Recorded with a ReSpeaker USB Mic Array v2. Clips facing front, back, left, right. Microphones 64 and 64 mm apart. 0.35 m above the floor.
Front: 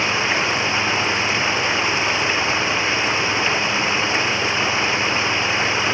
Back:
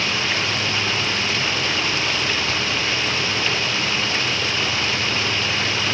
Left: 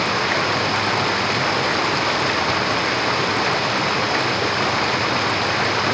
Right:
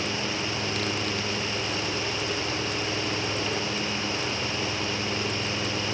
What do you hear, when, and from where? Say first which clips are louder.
0.0 s running water: front 3 dB, left 10 dB; 70° left